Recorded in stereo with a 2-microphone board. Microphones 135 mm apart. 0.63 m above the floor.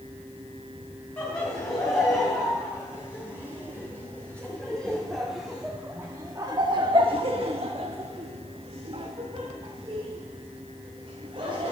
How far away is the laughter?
About 3.5 m.